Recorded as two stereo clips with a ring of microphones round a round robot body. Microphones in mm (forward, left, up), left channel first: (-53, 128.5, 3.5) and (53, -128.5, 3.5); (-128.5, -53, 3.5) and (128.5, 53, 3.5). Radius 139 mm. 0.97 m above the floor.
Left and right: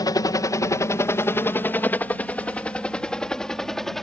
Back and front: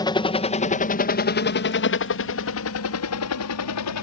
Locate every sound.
0.0 s a helicopter: 160° left; by 4.0 s 160° right